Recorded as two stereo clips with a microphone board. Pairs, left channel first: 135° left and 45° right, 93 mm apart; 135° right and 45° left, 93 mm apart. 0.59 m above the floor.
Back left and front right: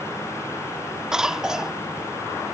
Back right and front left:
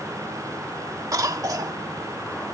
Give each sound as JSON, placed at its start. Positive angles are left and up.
{"t": 1.1, "sound": "a cough", "azimuth_deg": 35}